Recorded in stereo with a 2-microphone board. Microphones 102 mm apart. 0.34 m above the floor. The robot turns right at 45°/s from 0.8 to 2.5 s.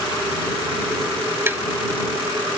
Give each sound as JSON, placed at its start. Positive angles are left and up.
{"t": 1.5, "sound": "tapping", "side_deg": -25}